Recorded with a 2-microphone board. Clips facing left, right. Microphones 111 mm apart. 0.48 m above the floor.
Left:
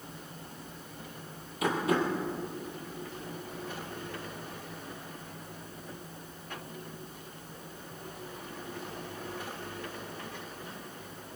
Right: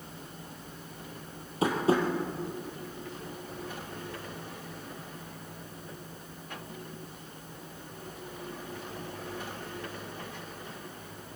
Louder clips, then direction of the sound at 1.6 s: Right 2 dB; 30° right (ahead or behind).